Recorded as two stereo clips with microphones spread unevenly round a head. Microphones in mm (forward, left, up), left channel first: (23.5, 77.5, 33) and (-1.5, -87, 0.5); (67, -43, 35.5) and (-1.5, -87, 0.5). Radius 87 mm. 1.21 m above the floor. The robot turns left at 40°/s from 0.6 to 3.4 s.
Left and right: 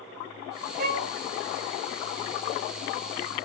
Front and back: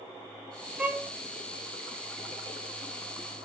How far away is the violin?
About 1.7 m.